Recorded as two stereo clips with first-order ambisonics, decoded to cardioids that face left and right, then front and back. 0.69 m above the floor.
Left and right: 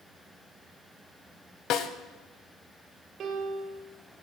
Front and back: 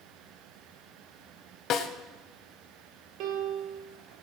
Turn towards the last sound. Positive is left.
turn(degrees=-150)